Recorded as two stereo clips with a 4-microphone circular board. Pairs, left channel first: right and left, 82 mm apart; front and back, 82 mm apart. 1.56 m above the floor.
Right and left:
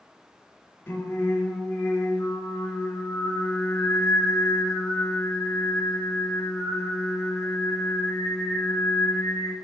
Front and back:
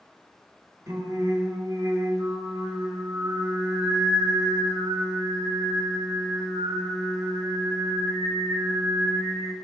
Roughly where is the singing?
Behind right.